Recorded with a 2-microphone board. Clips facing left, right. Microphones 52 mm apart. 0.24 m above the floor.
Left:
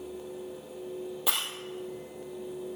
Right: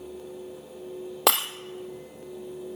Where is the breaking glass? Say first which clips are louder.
Right 10 dB; 75° right (ahead or behind), 1.7 m.